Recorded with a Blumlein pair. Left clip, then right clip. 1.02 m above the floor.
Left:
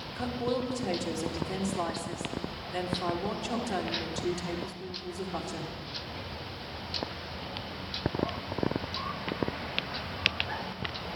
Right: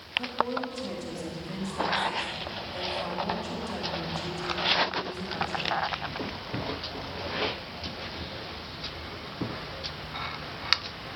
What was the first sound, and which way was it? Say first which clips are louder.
A woman speaking: right 4 dB; 20° left.